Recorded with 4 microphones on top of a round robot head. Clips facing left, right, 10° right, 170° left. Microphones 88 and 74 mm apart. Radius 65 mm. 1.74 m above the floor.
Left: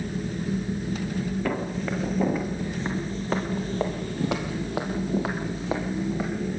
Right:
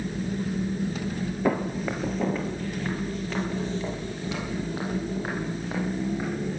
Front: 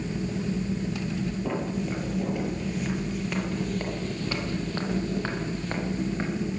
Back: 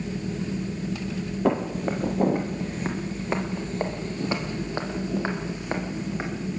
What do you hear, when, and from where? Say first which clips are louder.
1.4 s footsteps: right 2 dB, back 5 dB; 155° right, 2 m; by 6.3 s 95° left, 4 m